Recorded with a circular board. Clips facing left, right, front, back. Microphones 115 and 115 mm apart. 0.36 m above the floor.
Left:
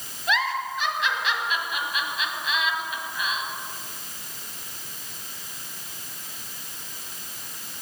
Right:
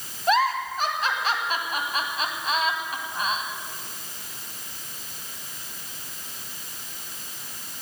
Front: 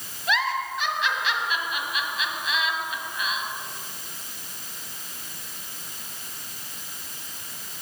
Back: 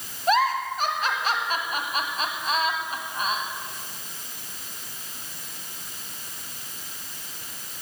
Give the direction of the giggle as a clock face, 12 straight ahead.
5 o'clock.